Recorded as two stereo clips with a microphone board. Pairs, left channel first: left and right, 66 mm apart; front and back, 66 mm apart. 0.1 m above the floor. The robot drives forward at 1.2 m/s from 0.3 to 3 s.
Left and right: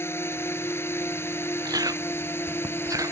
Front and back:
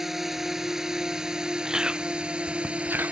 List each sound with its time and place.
0.0 s a drone: 100° left; by 3.1 s 115° left
1.6 s chewing: 100° right; by 3.1 s 120° right